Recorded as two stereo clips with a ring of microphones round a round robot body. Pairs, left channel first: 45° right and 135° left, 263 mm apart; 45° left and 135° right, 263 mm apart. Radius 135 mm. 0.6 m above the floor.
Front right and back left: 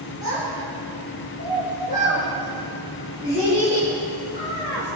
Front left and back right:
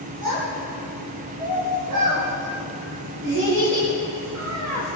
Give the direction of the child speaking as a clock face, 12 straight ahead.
5 o'clock.